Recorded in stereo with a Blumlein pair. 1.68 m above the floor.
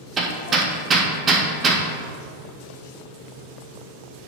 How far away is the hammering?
About 1.2 m.